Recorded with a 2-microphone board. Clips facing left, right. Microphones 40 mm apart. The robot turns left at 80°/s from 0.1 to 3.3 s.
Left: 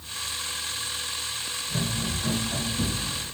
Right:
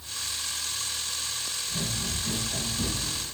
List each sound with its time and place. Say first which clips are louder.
1.7 s running footsteps: left 4 dB; 65° left (ahead or behind), 2.5 m; by 3.3 s 20° right (ahead or behind), 3 m